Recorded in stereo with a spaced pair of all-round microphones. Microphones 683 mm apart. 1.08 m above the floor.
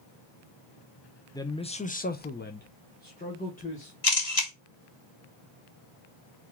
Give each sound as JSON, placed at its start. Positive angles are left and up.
{"t": 1.3, "sound": "a man speaking", "side_deg": 5, "distance_m": 0.7}
{"t": 4.0, "sound": "a camera shutter", "side_deg": 55, "distance_m": 1.3}